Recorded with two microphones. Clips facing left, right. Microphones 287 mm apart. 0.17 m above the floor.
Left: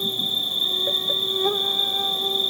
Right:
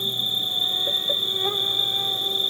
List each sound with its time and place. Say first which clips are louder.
0.0 s an insect: left 4 dB; 50° left (ahead or behind), 0.8 m